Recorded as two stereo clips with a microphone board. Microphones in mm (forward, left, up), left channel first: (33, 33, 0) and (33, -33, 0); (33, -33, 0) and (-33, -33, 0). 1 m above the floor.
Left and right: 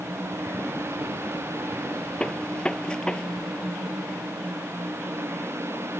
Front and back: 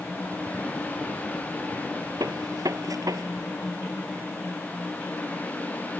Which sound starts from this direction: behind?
A gunshot, at 2.2 s.